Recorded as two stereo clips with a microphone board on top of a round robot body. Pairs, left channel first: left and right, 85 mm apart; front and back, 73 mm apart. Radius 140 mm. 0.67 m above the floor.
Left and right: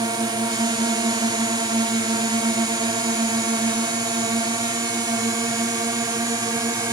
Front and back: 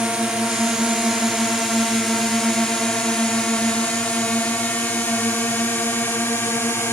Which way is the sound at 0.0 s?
100° right.